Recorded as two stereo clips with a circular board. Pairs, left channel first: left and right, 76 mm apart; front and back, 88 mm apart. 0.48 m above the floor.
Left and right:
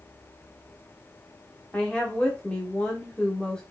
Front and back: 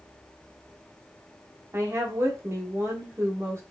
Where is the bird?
I don't hear a bird.